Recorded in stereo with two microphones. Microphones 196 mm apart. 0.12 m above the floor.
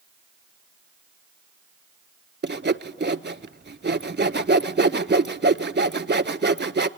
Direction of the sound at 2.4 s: 60° right (ahead or behind).